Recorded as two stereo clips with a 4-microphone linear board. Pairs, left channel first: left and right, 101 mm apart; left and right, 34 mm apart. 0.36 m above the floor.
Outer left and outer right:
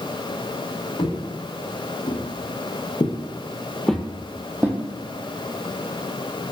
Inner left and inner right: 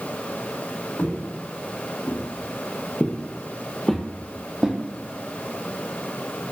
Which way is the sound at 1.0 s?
75° left (ahead or behind).